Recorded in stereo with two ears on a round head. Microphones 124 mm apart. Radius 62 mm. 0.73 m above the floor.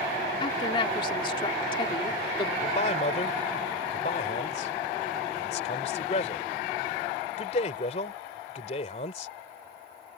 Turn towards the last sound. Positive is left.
turn(degrees=50)  # may be behind; listen again after turning